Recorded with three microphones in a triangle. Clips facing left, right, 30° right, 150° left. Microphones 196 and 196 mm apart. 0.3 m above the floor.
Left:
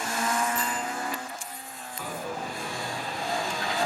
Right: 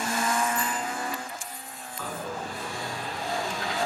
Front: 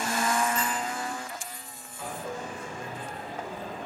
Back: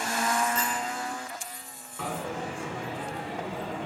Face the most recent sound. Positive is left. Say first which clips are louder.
# even, back 3 dB
turn(degrees=165)